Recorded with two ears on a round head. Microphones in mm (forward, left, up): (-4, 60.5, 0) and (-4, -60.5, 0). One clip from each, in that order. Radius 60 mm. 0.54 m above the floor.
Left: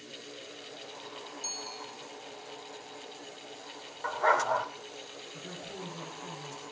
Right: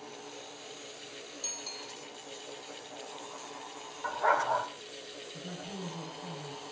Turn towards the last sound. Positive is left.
turn(degrees=45)  # may be behind; listen again after turning